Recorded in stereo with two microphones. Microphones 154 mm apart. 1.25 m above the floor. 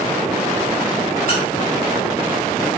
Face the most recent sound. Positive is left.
turn(degrees=-65)  # may be behind; listen again after turning